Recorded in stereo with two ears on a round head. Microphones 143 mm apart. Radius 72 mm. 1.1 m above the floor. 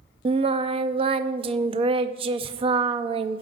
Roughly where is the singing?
Right.